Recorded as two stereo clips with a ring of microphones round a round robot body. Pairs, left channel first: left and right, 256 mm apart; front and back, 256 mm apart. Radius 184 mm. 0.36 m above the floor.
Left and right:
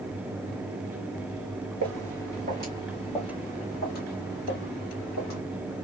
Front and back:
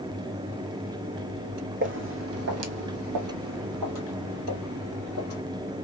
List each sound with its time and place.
1.8 s footsteps: 135° right, 1.0 m; by 5.4 s 115° left, 1.6 m